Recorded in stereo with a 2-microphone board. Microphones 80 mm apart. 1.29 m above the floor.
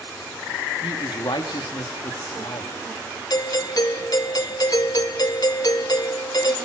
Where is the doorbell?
55° left (ahead or behind), 1.5 m.